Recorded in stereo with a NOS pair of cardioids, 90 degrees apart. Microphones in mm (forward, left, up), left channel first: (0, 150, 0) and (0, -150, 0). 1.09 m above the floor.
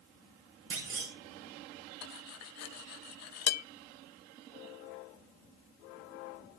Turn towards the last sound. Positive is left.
turn(degrees=55)